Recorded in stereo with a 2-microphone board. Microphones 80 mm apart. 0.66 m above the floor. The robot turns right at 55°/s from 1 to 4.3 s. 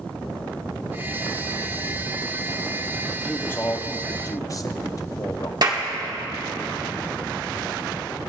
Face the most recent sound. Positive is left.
turn(degrees=-50)  # may be behind; listen again after turning